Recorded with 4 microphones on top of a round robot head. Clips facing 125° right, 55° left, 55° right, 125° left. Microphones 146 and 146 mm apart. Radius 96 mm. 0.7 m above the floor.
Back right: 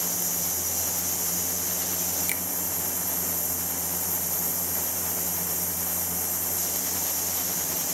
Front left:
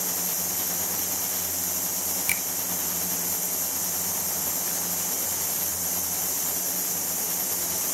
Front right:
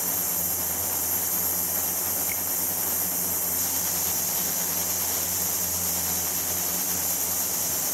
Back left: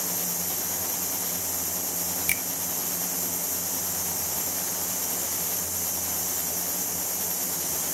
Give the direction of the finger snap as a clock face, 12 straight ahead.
8 o'clock.